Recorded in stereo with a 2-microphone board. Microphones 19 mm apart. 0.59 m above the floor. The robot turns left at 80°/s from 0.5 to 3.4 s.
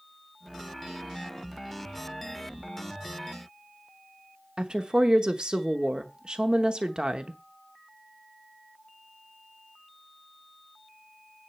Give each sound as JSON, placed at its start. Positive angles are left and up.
{"t": 4.6, "sound": "a woman speaking", "side_deg": -50, "distance_m": 1.0}